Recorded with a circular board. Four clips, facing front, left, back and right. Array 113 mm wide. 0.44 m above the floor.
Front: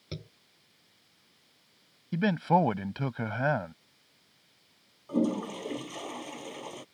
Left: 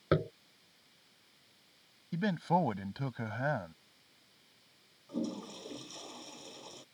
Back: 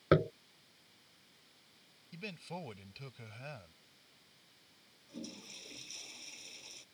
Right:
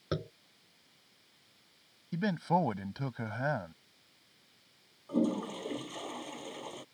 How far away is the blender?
I don't hear a blender.